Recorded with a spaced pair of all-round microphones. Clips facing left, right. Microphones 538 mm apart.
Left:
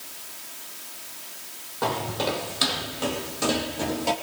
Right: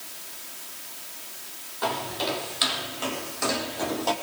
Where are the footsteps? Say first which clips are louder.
Left 3 dB; 65° left (ahead or behind), 3.5 m; by 4.1 s 45° left (ahead or behind), 3.5 m.